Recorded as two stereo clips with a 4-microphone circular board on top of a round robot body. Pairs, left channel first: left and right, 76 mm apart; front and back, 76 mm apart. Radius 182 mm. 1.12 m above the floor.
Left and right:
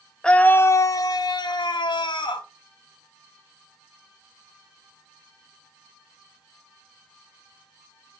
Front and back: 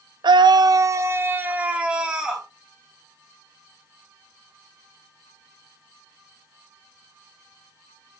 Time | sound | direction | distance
0.2 | a scream | 170° left | 0.8 m